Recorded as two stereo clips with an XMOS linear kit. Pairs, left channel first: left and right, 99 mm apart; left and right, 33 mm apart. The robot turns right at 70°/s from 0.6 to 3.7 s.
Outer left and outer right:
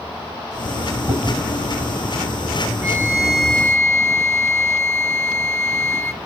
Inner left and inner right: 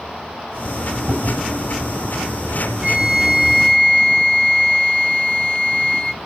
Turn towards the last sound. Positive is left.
turn(degrees=25)